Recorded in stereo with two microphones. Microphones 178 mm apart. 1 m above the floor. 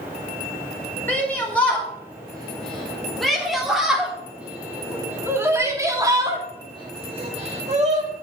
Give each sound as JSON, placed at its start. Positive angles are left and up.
{"t": 1.1, "sound": "a shout", "side_deg": 10, "distance_m": 4.5}